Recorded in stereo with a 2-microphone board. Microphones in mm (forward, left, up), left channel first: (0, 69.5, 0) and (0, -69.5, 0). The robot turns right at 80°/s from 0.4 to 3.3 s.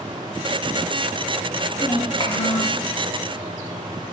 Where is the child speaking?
15° left, 1.3 m; by 2.8 s 95° left, 1.3 m.